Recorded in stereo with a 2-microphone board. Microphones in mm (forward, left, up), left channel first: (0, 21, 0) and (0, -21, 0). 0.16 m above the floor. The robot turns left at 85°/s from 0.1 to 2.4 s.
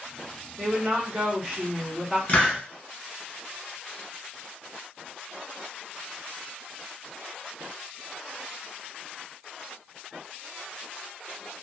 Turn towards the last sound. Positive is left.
turn(degrees=35)  # may be behind; listen again after turning